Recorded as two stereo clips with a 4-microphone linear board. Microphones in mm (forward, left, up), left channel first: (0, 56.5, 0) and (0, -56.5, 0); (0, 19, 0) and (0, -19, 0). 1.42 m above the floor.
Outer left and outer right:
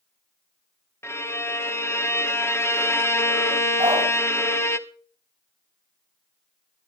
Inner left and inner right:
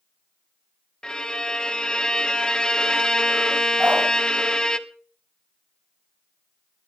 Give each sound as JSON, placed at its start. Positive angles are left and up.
{"t": 1.0, "sound": "a violin", "side_deg": 20, "distance_m": 0.8}
{"t": 3.8, "sound": "a dog barking", "side_deg": -40, "distance_m": 4.5}